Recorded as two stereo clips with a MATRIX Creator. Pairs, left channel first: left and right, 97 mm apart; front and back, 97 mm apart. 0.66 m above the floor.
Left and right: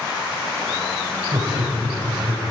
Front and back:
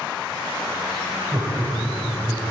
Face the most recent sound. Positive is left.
turn(degrees=-115)